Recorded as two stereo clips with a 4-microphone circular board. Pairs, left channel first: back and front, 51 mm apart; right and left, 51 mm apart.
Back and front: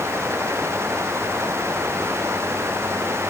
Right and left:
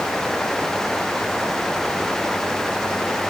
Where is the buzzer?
No buzzer in this recording.